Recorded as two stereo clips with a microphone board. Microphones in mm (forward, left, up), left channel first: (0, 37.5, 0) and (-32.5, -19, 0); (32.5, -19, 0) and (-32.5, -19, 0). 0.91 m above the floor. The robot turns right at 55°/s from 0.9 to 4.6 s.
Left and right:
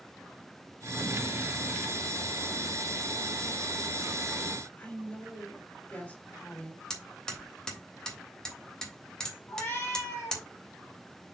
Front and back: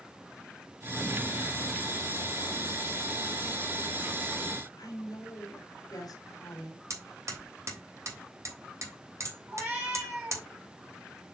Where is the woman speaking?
5° right, 3 m.